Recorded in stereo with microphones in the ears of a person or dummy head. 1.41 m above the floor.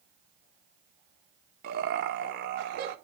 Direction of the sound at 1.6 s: 55° right (ahead or behind).